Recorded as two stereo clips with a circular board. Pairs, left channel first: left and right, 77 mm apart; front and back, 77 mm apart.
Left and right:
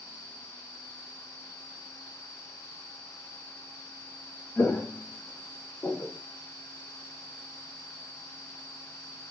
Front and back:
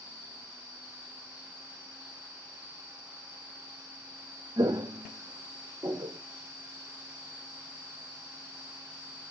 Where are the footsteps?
160° left, 0.7 m; by 6.2 s 165° left, 1.5 m.